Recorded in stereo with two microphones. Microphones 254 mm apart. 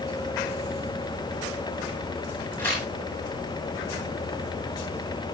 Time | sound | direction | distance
2.6 | tearing paper | 10° left (ahead or behind) | 9.5 m